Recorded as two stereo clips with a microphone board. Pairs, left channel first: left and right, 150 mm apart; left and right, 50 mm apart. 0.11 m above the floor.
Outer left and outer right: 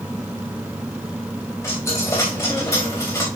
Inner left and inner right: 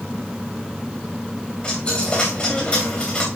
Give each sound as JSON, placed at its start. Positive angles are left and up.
{"t": 1.6, "sound": "a dropped coin", "side_deg": 15, "distance_m": 3.5}